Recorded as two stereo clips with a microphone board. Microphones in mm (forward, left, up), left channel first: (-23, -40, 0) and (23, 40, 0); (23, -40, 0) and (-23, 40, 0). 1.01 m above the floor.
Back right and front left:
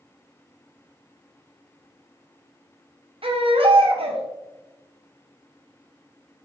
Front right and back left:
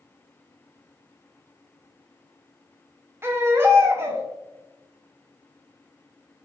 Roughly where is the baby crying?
Ahead left.